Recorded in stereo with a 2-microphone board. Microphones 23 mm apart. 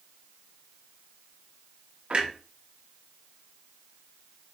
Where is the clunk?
40° right (ahead or behind), 0.8 m.